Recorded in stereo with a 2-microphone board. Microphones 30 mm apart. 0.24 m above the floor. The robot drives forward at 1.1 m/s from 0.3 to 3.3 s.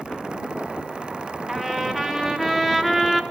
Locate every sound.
1.5 s a trumpet: centre (ahead or behind), 3.5 m